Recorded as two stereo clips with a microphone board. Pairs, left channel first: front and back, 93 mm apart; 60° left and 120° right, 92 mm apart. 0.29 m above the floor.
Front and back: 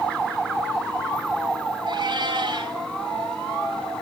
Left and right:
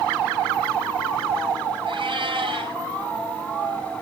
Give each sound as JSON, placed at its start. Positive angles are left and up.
{"t": 1.9, "sound": "a cat meowing", "azimuth_deg": -150, "distance_m": 3.0}